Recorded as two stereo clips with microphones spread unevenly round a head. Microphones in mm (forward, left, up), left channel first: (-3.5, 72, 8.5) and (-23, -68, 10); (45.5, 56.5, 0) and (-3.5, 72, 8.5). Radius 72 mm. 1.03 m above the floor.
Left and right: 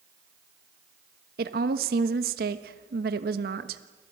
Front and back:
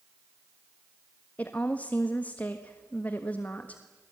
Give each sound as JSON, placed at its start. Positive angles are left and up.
{"t": 1.4, "sound": "a woman speaking", "azimuth_deg": -85, "distance_m": 1.3}